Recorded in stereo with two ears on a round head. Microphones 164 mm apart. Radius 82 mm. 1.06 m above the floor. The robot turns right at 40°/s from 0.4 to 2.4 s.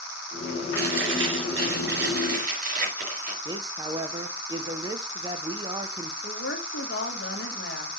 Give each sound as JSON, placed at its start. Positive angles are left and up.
{"t": 0.8, "sound": "chewing", "azimuth_deg": -110, "distance_m": 4.0}
{"t": 3.5, "sound": "a man speaking", "side_deg": -25, "distance_m": 0.7}
{"t": 6.2, "sound": "a woman speaking", "side_deg": 60, "distance_m": 1.5}